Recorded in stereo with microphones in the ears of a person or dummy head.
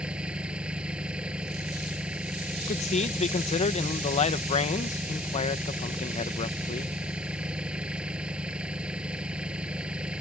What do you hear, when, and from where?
0.0 s an engine running: 10° right (ahead or behind)
2.7 s a man speaking: 30° left (ahead or behind)